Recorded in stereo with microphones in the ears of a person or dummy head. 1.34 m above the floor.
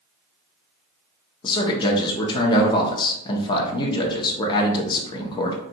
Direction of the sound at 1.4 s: 20° left (ahead or behind).